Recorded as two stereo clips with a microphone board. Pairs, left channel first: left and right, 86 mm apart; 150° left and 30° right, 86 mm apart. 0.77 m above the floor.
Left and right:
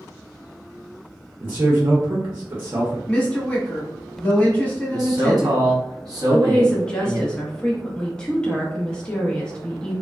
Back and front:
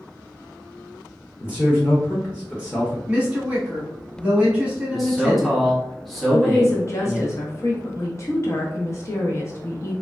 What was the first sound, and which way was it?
A man speaking, 145° right.